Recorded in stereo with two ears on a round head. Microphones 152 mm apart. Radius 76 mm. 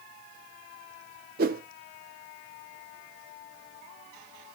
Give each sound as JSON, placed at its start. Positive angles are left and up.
{"t": 1.4, "sound": "a whoosh", "side_deg": -55, "distance_m": 0.5}